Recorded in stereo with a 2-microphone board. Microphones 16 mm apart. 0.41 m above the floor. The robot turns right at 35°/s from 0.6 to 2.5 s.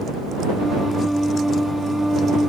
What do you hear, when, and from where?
Only background noise.